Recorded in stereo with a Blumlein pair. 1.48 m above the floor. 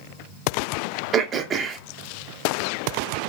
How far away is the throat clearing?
About 0.6 m.